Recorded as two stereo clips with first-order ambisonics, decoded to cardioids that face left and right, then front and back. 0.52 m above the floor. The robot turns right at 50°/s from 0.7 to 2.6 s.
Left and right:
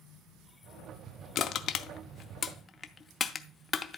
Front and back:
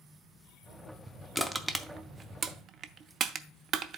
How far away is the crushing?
About 0.5 m.